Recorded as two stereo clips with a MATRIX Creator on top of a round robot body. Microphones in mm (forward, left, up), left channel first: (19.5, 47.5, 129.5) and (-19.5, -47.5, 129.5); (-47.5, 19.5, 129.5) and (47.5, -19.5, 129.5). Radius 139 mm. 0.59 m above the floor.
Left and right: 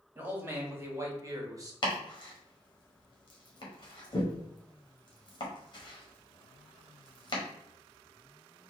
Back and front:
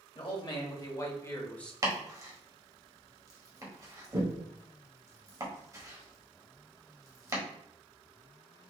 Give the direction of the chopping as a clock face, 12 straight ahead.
11 o'clock.